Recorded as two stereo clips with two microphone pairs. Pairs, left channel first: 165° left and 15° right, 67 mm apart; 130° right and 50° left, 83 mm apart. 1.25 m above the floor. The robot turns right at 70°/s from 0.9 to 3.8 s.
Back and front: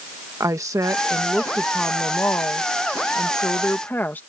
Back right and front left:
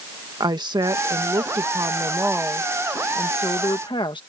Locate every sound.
0.4 s a woman speaking: 20° left; by 4.2 s 140° right